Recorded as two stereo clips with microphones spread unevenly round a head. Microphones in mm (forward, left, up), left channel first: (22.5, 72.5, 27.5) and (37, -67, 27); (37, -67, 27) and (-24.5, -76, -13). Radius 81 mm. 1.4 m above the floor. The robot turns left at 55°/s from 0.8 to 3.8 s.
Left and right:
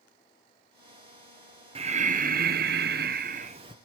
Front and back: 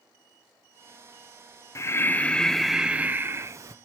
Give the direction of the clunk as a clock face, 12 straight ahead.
No clunk in this recording.